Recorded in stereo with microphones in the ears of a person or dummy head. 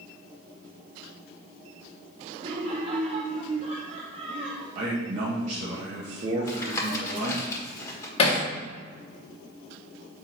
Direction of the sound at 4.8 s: 40° right (ahead or behind).